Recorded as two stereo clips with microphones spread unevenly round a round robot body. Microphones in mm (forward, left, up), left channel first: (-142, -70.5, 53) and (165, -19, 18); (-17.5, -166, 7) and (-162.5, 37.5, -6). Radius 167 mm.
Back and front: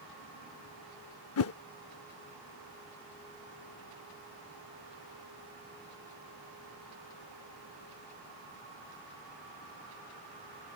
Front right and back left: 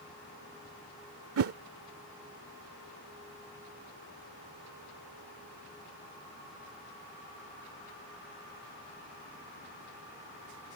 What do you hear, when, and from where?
1.4 s a whoosh: 140° left